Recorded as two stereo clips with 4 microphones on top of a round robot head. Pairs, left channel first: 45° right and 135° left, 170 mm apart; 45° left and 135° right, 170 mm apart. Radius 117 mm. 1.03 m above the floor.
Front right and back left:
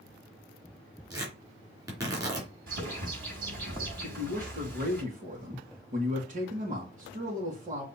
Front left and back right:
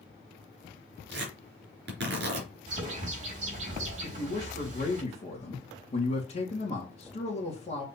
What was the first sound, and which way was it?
Tearing paper, 155° right.